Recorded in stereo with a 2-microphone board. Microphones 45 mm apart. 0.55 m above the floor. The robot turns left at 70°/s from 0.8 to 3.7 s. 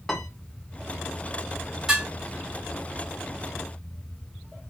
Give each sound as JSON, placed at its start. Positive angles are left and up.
{"t": 0.1, "sound": "a piano", "side_deg": 10, "distance_m": 0.9}
{"t": 1.9, "sound": "dishes clattering", "side_deg": -15, "distance_m": 2.0}